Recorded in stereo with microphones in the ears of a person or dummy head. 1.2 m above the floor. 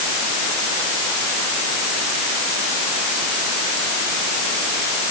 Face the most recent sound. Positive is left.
No sound to turn to.